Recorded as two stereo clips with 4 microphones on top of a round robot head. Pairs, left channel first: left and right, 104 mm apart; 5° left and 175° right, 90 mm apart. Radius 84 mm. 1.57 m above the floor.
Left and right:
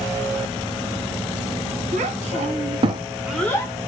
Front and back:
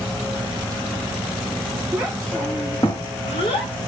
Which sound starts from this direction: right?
A child speaking, at 1.9 s.